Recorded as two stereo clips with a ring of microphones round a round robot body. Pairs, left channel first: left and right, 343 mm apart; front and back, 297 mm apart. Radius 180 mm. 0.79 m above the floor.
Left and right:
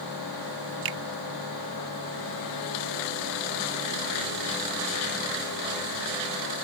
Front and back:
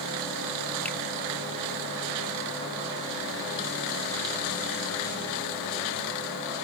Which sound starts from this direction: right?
A finger snap, at 0.8 s.